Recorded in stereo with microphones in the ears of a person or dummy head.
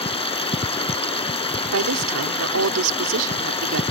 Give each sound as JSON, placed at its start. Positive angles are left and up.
{"t": 0.0, "sound": "running water", "side_deg": 25}
{"t": 1.7, "sound": "a woman speaking", "side_deg": -80}